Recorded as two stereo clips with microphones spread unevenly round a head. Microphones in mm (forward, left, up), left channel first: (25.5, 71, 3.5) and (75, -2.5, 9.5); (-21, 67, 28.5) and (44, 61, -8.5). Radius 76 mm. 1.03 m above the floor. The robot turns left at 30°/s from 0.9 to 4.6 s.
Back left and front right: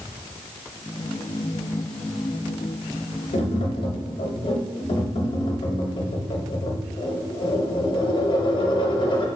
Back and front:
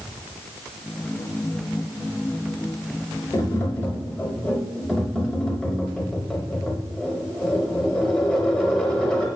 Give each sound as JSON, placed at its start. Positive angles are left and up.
{"t": 3.3, "sound": "tapping", "azimuth_deg": 130, "distance_m": 0.7}